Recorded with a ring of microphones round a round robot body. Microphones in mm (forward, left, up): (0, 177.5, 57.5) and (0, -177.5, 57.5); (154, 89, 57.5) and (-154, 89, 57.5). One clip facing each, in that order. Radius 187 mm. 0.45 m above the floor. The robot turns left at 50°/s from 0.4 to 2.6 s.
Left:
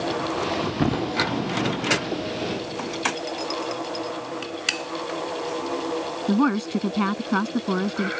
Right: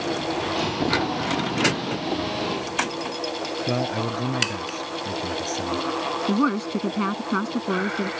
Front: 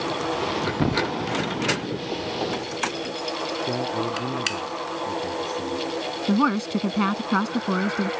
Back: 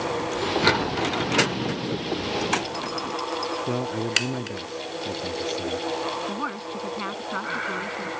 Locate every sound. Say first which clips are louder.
0.8 s a thud: left 2 dB, front 3 dB; 35° left; by 1.1 s 15° left
3.7 s a man speaking: right 4 dB, even; 95° right
6.3 s a woman speaking: left 2 dB, front 11 dB; 10° left